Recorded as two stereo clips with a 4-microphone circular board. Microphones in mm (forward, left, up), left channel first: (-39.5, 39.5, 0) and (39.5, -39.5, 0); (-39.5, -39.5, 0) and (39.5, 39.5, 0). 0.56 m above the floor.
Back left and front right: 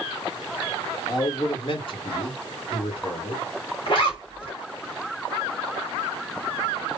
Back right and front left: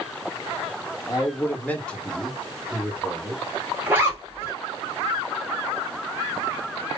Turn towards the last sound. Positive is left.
turn(degrees=110)